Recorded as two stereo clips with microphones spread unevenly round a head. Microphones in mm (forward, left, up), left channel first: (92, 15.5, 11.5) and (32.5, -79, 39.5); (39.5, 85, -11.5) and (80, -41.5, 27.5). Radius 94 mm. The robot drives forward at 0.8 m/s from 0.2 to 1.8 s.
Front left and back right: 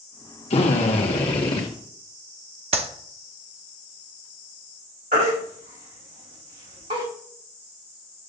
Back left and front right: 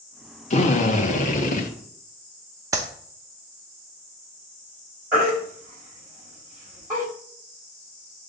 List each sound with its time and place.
0.5 s a drill: 85° left, 1.9 m; by 1.7 s 115° left, 2 m
2.7 s a clap: 130° right, 0.8 m
5.1 s a baby crying: 150° right, 4 m